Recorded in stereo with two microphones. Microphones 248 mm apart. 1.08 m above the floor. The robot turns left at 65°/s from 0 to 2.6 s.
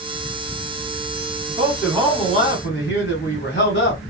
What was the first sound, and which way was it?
A man speaking, 155° right.